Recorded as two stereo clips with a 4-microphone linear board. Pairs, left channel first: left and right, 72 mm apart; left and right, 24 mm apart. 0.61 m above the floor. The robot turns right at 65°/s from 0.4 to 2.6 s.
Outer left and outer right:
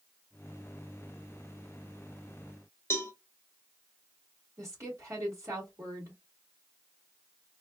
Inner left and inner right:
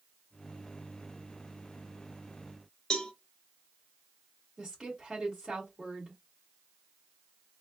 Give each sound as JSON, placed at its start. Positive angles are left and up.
{"t": 2.9, "sound": "a cowbell", "side_deg": 30, "distance_m": 1.1}
{"t": 4.6, "sound": "a woman speaking", "side_deg": -40, "distance_m": 2.0}